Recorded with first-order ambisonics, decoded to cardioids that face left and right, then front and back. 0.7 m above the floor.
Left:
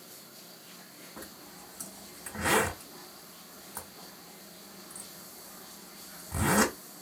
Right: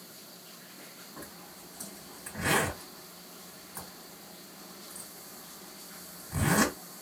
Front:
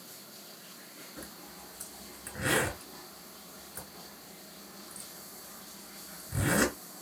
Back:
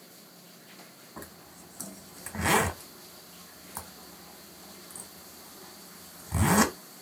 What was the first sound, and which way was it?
A zipper, 165° left.